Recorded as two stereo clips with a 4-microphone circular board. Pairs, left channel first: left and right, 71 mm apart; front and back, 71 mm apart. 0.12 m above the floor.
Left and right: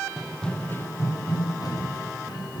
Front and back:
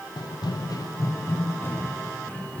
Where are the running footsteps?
10° right, 1.0 m; by 2.6 s 70° left, 3 m.